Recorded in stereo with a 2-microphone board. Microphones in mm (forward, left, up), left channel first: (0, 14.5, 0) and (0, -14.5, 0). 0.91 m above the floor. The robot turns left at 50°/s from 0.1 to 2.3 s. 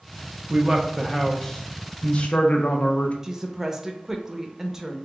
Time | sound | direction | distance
0.5 | a man speaking | 140° right | 0.7 m
3.2 | a woman speaking | 15° right (ahead or behind) | 0.6 m